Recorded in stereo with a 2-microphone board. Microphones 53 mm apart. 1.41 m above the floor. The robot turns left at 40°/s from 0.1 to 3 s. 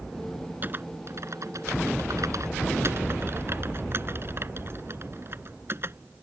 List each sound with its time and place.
0.6 s typing on a keyboard: 35° right (ahead or behind); by 6.2 s 50° right (ahead or behind)